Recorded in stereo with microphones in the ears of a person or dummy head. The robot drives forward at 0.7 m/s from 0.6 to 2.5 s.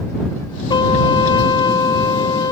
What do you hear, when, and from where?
0.7 s a trumpet: 25° left (ahead or behind); by 2.5 s 20° left (ahead or behind)